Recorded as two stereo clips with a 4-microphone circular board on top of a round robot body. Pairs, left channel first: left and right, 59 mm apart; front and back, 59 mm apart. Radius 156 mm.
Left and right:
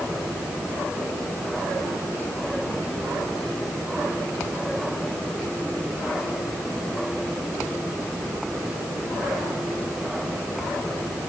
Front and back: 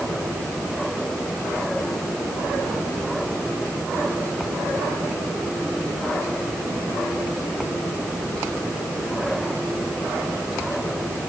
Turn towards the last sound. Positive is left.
No sound to turn to.